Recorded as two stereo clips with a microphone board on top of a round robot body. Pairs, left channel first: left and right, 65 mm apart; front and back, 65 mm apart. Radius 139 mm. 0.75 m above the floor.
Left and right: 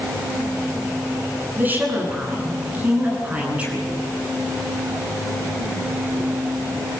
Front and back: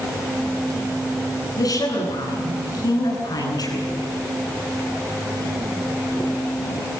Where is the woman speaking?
25° right, 10 m; by 4.0 s 15° right, 10 m.